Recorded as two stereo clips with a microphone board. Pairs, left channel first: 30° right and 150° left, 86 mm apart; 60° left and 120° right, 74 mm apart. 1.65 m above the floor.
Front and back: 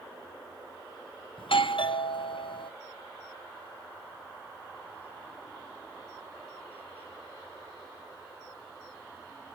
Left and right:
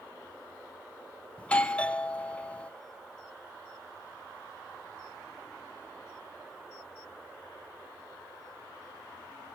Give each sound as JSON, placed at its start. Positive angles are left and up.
{"t": 1.4, "sound": "a doorbell", "azimuth_deg": -15, "distance_m": 0.6}